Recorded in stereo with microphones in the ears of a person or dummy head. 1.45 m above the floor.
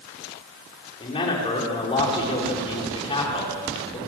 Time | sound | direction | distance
1.0 | a man speaking | 25° left (ahead or behind) | 4.5 m